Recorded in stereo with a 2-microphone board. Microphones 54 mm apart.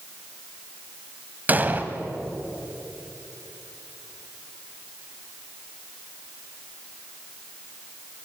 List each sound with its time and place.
1.5 s an explosion: 30° right (ahead or behind), 1.4 m